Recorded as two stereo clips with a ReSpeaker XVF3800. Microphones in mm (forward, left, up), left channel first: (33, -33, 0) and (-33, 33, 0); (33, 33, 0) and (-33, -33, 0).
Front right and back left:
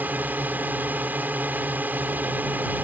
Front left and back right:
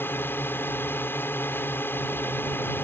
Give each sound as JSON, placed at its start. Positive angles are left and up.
{"t": 0.0, "sound": "a drone", "azimuth_deg": 85}